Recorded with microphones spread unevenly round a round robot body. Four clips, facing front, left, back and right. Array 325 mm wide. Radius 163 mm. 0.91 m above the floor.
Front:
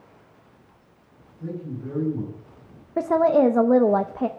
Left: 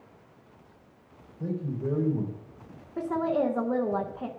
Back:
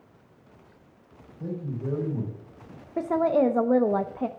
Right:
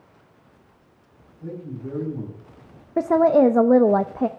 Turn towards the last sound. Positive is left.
turn(degrees=-65)